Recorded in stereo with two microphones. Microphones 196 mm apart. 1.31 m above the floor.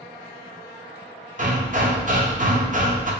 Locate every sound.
1.4 s hammering: 40° right (ahead or behind), 0.7 m